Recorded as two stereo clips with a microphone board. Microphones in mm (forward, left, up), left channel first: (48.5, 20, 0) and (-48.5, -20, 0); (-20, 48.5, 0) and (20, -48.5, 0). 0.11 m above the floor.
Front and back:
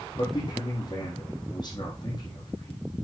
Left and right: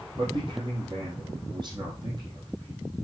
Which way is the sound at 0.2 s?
25° right.